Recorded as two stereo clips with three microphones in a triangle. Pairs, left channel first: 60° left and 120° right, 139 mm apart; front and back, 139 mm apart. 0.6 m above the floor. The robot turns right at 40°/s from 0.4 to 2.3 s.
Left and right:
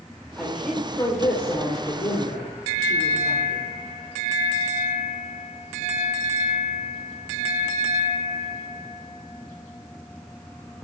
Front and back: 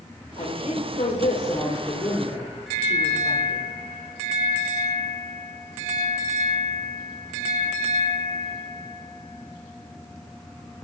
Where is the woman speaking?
30° right, 2.5 m; by 3.6 s 45° left, 2.5 m.